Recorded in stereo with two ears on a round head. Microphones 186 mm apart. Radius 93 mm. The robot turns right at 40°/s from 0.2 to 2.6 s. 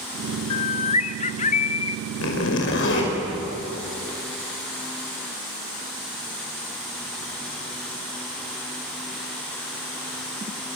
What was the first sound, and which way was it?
A bird, 60° left.